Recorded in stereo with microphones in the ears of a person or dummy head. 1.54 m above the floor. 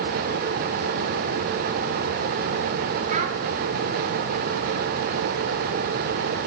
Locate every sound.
3.1 s a child speaking: 40° right (ahead or behind), 1.1 m